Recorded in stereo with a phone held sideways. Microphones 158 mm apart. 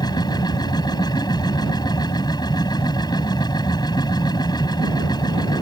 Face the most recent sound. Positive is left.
turn(degrees=25)  # may be behind; listen again after turning